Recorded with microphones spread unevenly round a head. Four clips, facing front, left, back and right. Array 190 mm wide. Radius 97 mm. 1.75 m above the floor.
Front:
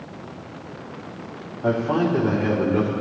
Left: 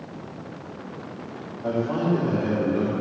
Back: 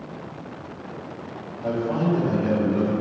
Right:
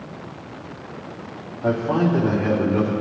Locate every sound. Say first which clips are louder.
1.6 s a man speaking: right 4 dB, front 3 dB; 45° right, 3.5 m